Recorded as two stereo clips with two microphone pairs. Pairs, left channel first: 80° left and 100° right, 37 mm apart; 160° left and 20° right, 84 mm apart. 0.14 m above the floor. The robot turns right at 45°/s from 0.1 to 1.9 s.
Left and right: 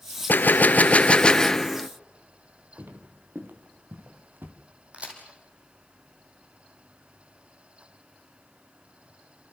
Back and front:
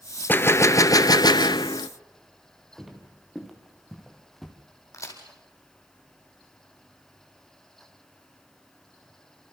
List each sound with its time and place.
0.3 s a gunshot: 100° left, 0.6 m; by 1.9 s 170° left, 0.6 m
2.8 s footsteps: 105° right, 4 m; by 4.5 s 110° right, 2.5 m
4.9 s a crack: 150° right, 4 m